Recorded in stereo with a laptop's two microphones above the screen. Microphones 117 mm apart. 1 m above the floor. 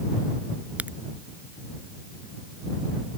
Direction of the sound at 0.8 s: 10° right (ahead or behind).